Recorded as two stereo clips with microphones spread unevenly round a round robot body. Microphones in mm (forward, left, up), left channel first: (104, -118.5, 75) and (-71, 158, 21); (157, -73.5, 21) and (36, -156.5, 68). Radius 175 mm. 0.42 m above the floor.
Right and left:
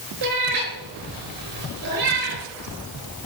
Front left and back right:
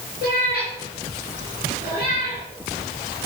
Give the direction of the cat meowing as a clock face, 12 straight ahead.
7 o'clock.